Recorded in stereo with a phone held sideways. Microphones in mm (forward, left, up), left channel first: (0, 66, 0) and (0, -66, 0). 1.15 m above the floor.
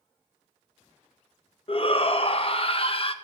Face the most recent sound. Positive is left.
turn(degrees=45)  # may be behind; listen again after turning